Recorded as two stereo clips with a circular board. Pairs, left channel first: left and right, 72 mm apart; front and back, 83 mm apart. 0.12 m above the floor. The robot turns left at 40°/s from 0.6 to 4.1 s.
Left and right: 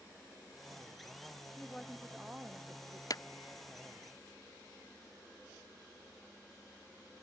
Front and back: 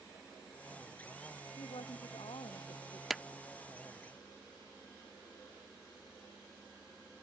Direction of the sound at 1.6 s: 15° left.